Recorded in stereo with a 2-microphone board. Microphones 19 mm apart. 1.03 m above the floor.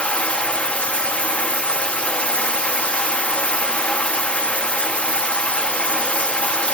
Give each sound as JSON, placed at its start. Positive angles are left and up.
{"t": 0.0, "sound": "running water", "side_deg": 70, "distance_m": 1.0}